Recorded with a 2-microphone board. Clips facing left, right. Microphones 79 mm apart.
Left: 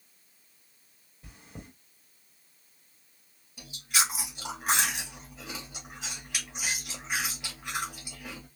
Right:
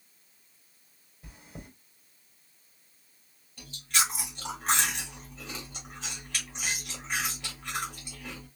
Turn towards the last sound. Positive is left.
turn(degrees=10)  # may be behind; listen again after turning